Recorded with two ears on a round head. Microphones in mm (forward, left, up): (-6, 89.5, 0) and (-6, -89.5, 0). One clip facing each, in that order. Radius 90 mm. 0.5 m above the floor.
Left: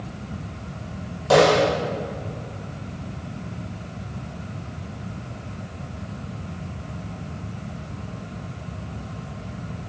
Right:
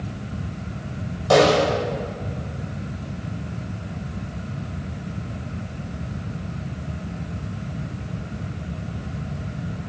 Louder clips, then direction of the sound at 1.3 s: Even; 5° left (ahead or behind).